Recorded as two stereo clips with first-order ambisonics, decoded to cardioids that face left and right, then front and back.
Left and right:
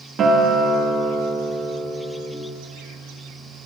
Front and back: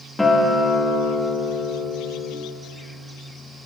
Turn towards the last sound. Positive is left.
turn(degrees=-85)